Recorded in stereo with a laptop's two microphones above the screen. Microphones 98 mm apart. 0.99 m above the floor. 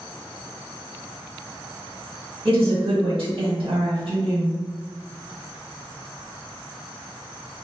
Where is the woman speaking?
65° right (ahead or behind), 1.6 m.